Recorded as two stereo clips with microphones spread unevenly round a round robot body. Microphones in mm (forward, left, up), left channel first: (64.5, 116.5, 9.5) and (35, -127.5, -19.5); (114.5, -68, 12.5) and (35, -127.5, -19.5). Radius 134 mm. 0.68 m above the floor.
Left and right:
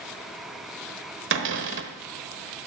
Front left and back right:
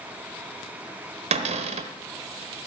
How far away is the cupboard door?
About 1.0 m.